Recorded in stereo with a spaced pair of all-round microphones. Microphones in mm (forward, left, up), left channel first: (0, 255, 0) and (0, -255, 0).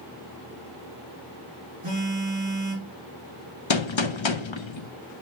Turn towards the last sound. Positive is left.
turn(degrees=65)  # may be behind; listen again after turning